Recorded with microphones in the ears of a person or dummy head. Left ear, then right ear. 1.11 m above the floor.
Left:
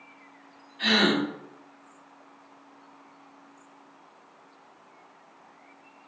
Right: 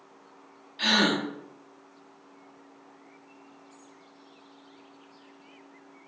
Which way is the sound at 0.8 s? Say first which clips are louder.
Left 1 dB; 65° right (ahead or behind).